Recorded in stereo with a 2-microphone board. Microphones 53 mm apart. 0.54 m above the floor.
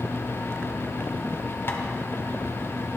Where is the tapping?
45° left (ahead or behind), 1.5 m.